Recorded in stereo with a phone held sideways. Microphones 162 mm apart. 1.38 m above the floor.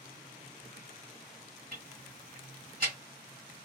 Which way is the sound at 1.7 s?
60° right (ahead or behind).